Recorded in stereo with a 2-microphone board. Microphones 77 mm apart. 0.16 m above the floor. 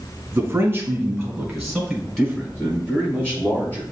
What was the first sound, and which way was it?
A man speaking, 30° right (ahead or behind).